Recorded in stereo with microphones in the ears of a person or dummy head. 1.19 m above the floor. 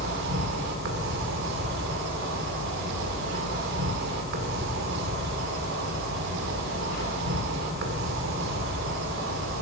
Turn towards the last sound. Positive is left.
turn(degrees=-60)  # may be behind; listen again after turning